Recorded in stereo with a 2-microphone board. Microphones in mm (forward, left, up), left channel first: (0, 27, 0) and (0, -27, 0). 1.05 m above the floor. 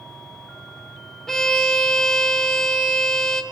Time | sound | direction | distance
1.3 | a violin | 5° left (ahead or behind) | 2.5 m